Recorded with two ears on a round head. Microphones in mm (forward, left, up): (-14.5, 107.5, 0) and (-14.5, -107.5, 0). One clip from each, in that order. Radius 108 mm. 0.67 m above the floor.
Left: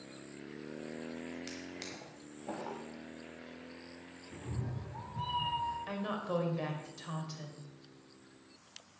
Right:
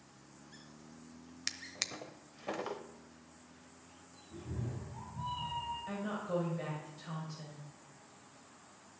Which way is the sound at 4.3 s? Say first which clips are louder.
Even; 55° left (ahead or behind).